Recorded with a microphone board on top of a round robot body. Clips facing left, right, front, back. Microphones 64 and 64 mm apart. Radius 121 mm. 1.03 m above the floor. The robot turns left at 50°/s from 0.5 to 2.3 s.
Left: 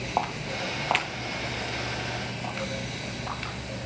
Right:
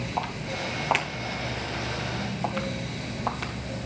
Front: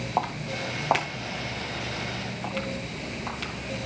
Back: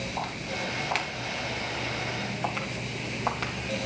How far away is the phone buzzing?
I don't hear a phone buzzing.